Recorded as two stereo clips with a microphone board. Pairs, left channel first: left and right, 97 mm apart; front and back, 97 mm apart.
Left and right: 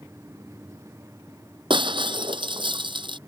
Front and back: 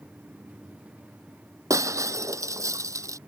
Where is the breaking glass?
125° right.